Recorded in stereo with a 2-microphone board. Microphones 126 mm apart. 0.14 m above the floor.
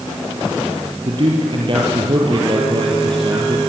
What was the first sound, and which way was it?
A man speaking, 45° right (ahead or behind).